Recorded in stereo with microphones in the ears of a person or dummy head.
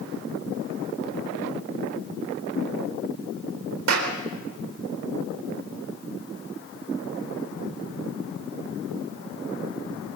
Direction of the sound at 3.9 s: 75° right (ahead or behind).